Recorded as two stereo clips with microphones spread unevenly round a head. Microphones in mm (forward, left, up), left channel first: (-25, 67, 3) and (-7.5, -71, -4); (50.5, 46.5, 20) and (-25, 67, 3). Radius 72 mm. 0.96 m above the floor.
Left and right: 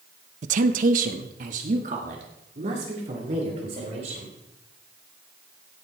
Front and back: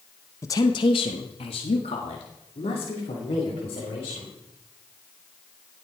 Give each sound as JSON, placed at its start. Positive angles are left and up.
{"t": 0.4, "sound": "a woman speaking", "azimuth_deg": -80, "distance_m": 0.6}